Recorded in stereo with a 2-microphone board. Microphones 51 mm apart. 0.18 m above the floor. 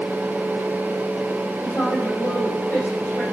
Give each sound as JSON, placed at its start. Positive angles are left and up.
{"t": 1.6, "sound": "a woman speaking", "side_deg": 50, "distance_m": 3.5}